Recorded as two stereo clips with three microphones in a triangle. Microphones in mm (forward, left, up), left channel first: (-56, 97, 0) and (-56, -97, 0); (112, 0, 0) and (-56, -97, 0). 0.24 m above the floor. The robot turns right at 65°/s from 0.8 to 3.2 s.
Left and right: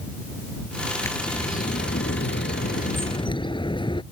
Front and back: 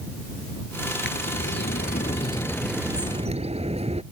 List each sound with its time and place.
1.0 s a bird: 15° left; by 4.0 s 155° left